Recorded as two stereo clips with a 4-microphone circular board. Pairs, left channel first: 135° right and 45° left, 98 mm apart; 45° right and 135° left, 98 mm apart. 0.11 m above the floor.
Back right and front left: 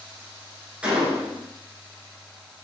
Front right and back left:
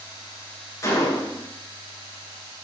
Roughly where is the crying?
No crying in this recording.